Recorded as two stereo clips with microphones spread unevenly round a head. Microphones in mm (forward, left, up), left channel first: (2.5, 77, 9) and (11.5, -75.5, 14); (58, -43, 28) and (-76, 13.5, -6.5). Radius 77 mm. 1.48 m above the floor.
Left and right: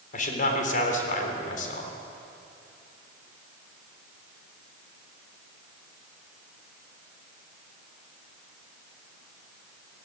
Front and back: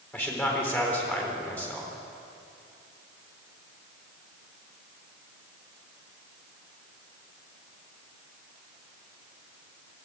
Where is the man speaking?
55° left, 4 m.